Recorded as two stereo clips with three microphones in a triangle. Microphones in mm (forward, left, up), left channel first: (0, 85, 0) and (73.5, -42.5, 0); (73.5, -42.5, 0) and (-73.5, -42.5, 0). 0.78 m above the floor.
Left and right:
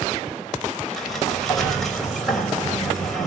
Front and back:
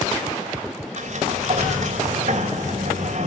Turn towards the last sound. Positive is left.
turn(degrees=-150)